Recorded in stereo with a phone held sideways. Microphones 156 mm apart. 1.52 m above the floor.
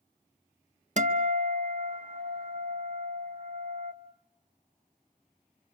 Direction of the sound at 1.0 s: 50° right (ahead or behind).